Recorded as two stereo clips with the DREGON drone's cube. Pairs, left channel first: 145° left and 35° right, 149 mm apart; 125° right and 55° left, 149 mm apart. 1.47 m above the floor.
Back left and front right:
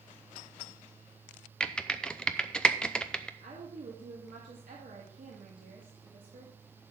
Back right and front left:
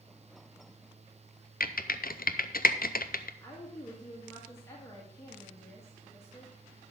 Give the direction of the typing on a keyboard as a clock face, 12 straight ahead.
4 o'clock.